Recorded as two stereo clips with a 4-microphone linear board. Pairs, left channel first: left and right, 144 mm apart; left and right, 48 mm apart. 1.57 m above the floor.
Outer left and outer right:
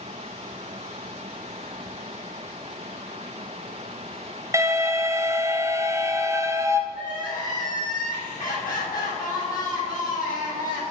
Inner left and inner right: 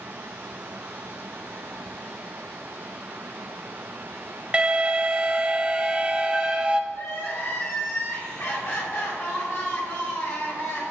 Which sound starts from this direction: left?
Crying, at 6.9 s.